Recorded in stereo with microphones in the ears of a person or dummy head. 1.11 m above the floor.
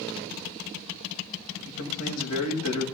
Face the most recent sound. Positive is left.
turn(degrees=85)